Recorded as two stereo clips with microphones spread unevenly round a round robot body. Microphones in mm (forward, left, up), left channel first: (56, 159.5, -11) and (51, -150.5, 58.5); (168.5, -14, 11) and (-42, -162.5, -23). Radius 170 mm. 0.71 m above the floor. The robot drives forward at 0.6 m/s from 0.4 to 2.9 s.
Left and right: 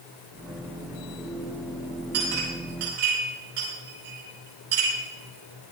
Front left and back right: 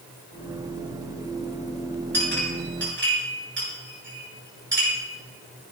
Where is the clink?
95° right, 7.5 m; by 4.9 s 100° right, 7.5 m.